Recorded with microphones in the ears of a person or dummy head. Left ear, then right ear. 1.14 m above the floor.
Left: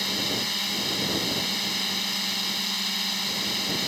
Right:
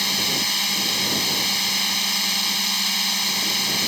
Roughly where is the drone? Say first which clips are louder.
Right 5 dB; right.